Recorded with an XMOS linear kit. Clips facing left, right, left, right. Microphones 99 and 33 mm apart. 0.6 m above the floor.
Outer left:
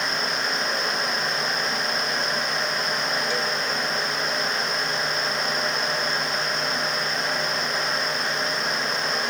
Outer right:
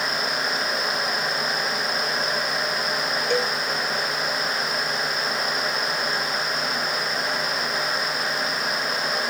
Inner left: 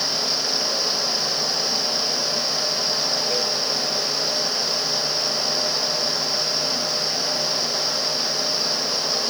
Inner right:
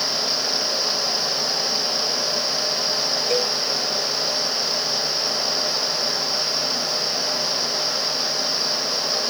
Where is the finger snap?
No finger snap in this recording.